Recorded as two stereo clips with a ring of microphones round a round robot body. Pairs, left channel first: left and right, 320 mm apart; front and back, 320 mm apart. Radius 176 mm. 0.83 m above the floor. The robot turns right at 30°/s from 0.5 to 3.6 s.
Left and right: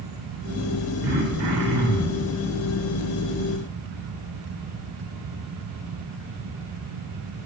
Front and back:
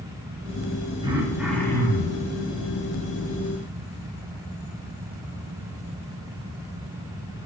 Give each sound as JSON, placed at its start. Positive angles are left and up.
{"t": 1.0, "sound": "throat clearing", "azimuth_deg": -105, "distance_m": 3.5}